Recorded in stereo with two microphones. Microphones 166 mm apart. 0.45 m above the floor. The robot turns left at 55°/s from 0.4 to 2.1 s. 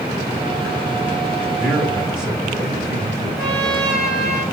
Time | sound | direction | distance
1.6 | a man speaking | 5° left (ahead or behind) | 1.4 m
3.4 | a trumpet | 5° left (ahead or behind) | 4 m